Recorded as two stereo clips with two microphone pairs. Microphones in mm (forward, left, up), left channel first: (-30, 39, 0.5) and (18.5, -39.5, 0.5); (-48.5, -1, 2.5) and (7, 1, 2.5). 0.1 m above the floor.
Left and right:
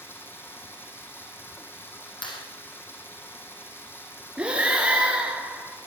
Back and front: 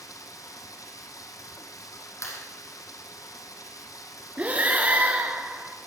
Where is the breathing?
Straight ahead, 1.9 m.